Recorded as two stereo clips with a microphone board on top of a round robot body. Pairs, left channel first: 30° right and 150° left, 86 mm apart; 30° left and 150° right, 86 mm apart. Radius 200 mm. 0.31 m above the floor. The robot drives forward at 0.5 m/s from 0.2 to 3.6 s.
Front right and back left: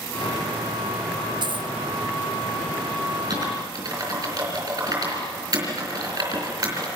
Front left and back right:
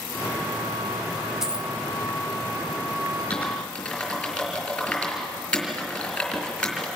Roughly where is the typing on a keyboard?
Left.